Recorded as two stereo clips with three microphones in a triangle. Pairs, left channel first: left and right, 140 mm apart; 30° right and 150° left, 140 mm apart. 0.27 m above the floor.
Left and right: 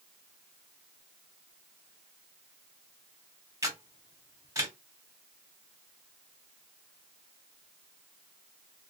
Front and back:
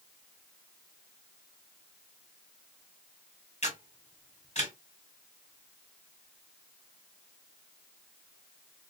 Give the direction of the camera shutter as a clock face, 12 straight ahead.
1 o'clock.